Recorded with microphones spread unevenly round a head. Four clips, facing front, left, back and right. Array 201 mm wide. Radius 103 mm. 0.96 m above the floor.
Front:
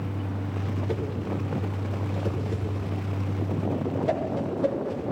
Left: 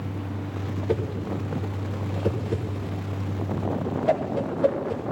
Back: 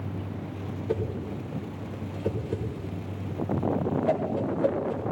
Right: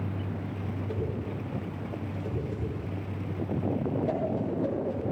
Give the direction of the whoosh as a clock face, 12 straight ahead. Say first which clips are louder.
Left 8 dB, back 2 dB; 9 o'clock.